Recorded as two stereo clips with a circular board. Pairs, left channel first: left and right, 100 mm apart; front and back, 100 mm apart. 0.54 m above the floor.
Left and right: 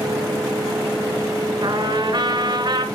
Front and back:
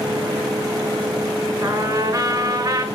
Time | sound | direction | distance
1.6 | a trumpet | 130° right | 2 m